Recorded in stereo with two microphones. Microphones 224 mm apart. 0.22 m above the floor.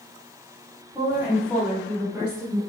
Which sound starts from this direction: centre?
A woman speaking, at 0.9 s.